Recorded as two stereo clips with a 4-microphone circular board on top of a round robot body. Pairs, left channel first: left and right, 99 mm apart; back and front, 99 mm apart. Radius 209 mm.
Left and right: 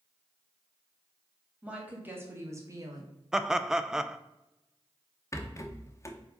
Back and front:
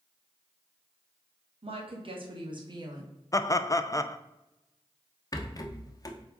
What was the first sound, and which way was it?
A woman speaking, 15° right.